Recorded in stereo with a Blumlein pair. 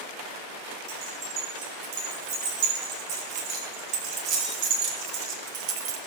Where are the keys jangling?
45° right, 7 m; by 6.0 s 40° right, 1.8 m.